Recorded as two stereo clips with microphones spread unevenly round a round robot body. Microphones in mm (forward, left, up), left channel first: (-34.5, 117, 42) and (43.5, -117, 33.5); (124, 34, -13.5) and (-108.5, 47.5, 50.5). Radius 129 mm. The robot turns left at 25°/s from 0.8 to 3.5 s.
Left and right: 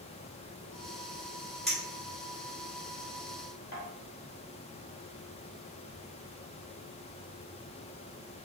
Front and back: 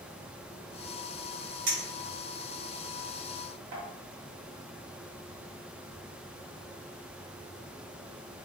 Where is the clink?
165° right, 1.7 m; by 3.8 s 150° left, 1.7 m.